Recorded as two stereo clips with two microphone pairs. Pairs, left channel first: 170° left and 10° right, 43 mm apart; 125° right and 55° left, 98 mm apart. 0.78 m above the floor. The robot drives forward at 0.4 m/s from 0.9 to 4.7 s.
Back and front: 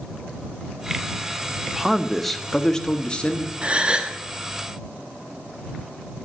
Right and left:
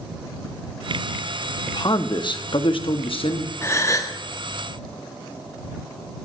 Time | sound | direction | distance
1.7 | a man speaking | 85° right | 1.0 m
3.6 | a gasp | 65° right | 1.2 m